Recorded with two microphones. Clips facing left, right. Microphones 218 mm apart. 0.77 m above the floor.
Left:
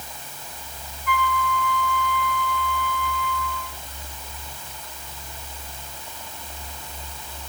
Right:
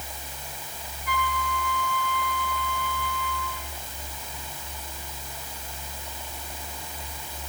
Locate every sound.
1.1 s a flute: 45° right (ahead or behind), 2.5 m